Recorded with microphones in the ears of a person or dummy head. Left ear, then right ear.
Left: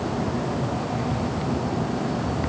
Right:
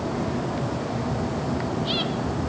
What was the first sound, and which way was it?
Only background noise.